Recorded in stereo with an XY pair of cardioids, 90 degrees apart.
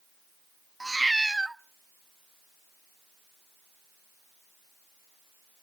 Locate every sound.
0.8 s a cat meowing: 15° right, 0.8 m